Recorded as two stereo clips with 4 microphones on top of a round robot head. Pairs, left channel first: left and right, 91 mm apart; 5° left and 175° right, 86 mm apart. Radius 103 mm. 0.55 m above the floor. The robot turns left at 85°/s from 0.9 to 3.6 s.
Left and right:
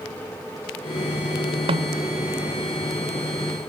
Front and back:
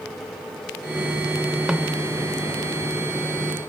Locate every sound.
1.7 s a snare drum: 95° right; by 2.0 s 120° right